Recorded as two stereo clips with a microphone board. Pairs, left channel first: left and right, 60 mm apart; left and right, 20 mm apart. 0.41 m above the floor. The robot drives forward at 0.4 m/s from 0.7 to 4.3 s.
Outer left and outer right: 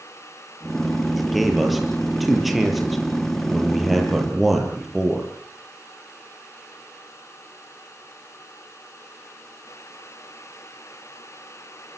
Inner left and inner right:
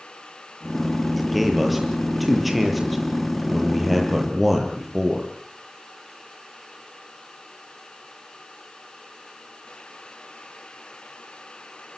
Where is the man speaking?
Centre (ahead or behind), 7.5 m.